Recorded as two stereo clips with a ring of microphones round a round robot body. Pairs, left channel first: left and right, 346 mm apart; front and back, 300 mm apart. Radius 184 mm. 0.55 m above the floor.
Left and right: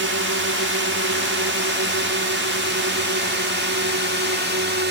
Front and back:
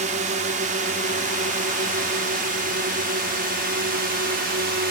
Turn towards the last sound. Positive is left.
turn(degrees=-135)